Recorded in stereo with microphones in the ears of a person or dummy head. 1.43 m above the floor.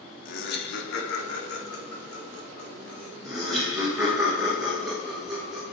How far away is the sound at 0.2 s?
About 0.6 m.